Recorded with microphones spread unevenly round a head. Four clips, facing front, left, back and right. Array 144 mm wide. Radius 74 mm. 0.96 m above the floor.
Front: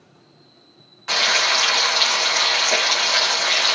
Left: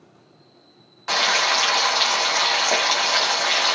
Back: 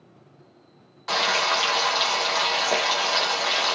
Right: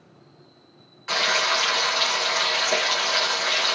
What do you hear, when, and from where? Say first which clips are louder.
1.1 s frying: left 2 dB, front 1 dB; 105° left, 1.3 m